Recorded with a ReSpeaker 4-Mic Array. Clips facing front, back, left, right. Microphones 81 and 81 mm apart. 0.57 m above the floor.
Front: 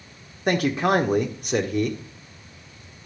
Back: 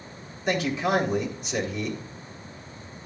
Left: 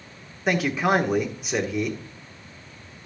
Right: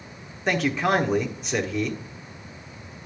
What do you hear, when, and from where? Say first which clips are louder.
0.5 s a man speaking: front 4 dB, left 1 dB; 5° left, 1.4 m